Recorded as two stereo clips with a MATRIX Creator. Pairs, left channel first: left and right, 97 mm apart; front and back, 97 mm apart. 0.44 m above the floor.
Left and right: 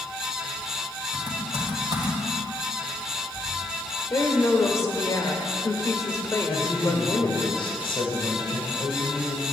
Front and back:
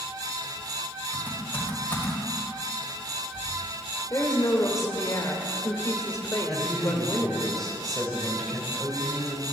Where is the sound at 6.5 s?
85° left, 1.9 m.